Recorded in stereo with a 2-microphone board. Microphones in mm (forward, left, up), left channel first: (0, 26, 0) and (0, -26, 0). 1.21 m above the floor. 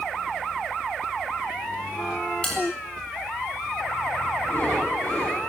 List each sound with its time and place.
2.4 s a bell: 20° left (ahead or behind), 7.5 m
4.4 s breathing: 35° left (ahead or behind), 9 m